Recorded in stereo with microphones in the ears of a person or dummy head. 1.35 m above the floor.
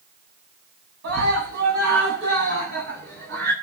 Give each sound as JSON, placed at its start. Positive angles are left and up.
{"t": 1.0, "sound": "a scream", "side_deg": -60, "distance_m": 8.5}